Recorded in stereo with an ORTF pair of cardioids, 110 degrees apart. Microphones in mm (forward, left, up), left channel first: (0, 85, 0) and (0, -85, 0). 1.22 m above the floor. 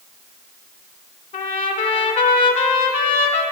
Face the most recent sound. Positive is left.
turn(degrees=45)